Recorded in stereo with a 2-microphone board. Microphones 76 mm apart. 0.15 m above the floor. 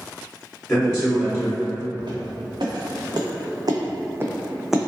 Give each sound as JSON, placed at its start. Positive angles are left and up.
{"t": 0.7, "sound": "a man speaking", "side_deg": 10, "distance_m": 1.4}
{"t": 2.0, "sound": "footsteps", "side_deg": -80, "distance_m": 1.2}